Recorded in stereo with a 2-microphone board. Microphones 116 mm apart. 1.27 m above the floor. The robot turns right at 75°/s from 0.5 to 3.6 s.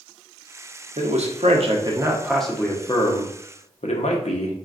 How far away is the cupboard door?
No cupboard door in this recording.